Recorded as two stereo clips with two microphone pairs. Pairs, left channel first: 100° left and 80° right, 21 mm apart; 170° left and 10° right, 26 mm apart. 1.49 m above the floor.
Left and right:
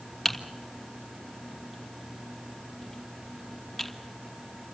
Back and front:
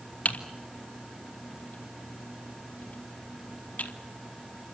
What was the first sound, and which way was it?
Typing on a keyboard, 170° right.